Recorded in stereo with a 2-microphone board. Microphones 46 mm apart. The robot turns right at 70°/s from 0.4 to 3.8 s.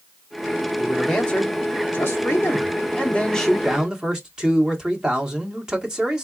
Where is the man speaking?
10° right, 1.6 m; by 6.3 s 160° right, 1.6 m.